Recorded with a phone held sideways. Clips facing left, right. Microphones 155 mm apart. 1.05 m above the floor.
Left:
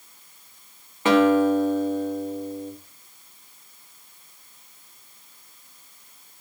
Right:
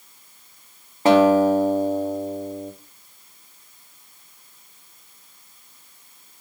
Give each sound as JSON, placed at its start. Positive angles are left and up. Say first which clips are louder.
{"t": 1.1, "sound": "a guitar", "louder": "right 3 dB", "side_deg": -35, "distance_m": 1.8}